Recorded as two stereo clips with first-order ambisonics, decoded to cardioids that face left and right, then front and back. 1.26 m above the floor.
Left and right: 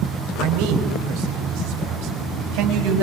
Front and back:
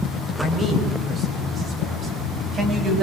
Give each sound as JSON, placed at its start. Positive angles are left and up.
{"t": 0.4, "sound": "a man speaking", "azimuth_deg": -105, "distance_m": 6.0}